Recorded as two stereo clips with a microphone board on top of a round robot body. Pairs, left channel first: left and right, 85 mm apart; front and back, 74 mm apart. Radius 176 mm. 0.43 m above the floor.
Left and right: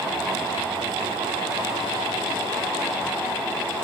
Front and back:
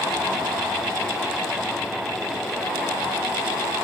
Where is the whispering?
I don't hear whispering.